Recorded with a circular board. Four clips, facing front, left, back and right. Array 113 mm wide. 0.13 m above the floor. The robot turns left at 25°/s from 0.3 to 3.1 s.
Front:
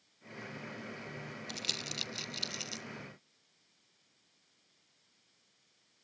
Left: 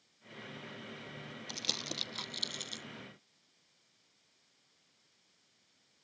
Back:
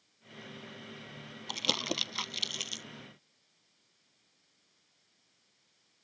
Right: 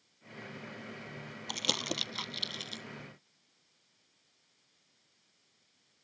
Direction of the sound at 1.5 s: 145° right.